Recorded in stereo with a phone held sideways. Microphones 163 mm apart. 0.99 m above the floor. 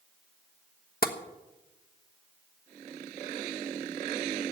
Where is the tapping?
60° left (ahead or behind), 1.2 m.